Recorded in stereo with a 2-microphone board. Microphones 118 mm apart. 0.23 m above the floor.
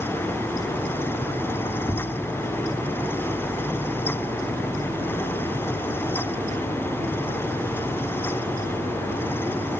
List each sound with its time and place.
1.9 s tapping: 25° left (ahead or behind), 4 m